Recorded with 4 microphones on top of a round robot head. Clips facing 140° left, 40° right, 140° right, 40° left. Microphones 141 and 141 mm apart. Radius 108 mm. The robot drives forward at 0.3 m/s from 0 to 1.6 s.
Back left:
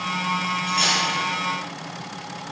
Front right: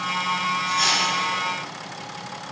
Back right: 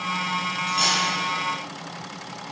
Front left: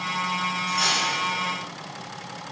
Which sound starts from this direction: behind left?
Cutlery clinking, at 0.7 s.